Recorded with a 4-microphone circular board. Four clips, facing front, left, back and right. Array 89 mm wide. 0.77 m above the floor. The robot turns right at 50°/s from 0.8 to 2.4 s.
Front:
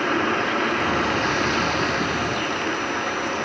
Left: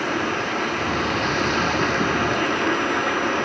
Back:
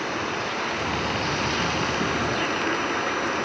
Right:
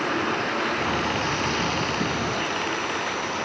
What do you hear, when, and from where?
0.0 s running water: 5° left, 1.9 m; by 3.5 s 85° left, 1.9 m